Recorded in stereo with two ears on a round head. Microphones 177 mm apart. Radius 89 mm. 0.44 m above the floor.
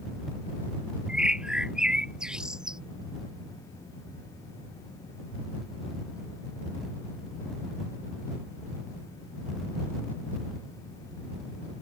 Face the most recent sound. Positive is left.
turn(degrees=-5)  # may be behind; listen again after turning